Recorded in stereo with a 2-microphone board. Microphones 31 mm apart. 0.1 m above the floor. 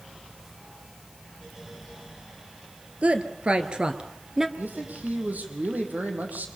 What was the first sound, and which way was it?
A woman speaking, 45° right (ahead or behind).